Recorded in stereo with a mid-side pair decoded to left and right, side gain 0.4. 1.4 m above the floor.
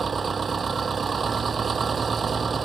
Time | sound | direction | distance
0.0 | an engine running | 45° right | ?